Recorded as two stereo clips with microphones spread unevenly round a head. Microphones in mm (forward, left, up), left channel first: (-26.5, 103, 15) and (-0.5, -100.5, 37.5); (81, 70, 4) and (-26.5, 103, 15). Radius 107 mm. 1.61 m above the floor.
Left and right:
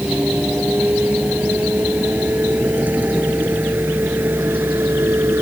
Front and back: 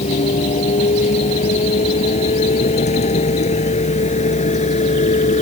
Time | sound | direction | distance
0.0 | a vehicle | straight ahead | ?